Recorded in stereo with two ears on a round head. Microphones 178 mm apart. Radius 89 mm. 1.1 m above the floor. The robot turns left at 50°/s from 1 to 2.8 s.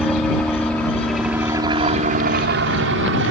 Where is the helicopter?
5° left (ahead or behind); by 3.3 s 65° right (ahead or behind).